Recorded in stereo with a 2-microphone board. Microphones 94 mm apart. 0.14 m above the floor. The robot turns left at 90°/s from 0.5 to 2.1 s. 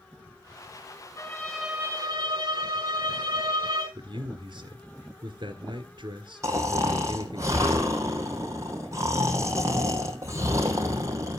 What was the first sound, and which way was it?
A violin, 35° left.